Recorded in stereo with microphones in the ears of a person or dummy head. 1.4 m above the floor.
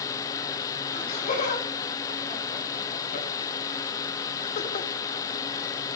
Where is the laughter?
45° left (ahead or behind), 4.5 m; by 4.9 s 30° left (ahead or behind), 0.9 m.